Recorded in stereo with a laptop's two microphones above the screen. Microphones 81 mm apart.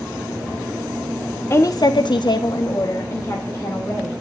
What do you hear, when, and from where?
1.5 s a woman speaking: 30° left (ahead or behind), 0.8 m